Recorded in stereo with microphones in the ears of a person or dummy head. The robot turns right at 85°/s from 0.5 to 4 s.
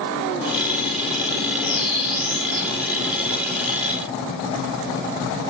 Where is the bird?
140° left, 2 m; by 2.7 s 125° right, 2 m.